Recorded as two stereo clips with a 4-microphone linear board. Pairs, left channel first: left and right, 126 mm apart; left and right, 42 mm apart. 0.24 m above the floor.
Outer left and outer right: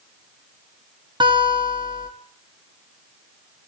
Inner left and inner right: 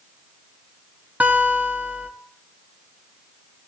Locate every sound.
1.2 s a guitar: 35° right (ahead or behind), 1.6 m